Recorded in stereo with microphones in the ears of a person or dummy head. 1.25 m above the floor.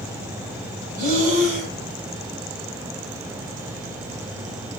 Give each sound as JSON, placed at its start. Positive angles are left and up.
{"t": 1.0, "sound": "breathing", "side_deg": -40, "distance_m": 5.0}